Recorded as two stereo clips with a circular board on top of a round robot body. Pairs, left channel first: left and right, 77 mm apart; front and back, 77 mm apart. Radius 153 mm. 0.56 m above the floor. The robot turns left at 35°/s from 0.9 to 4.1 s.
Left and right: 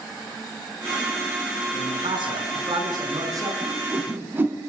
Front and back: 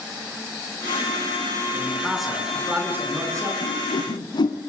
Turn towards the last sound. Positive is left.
turn(degrees=-25)